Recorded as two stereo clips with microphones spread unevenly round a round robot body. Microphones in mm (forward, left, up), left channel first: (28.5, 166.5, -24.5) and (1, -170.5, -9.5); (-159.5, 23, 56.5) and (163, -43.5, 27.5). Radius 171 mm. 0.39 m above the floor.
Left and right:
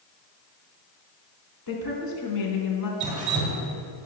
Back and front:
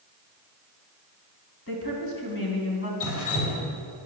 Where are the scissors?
I don't hear scissors.